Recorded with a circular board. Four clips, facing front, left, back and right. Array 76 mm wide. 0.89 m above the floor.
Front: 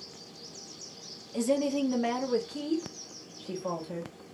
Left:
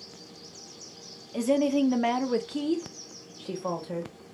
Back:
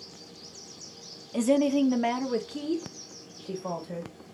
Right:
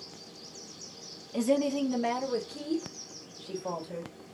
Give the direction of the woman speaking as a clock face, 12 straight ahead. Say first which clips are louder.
Left 3 dB, back 4 dB; 6 o'clock.